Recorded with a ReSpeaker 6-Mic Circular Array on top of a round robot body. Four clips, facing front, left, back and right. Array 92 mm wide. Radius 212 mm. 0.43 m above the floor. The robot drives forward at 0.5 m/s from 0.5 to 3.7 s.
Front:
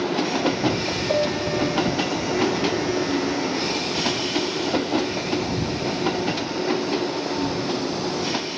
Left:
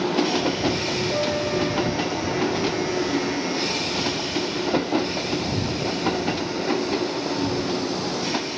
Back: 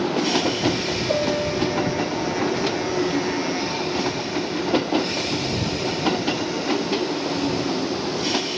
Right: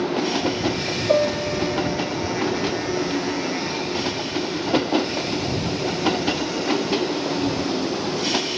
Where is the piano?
100° right, 4.5 m; by 2.1 s 105° right, 4.5 m.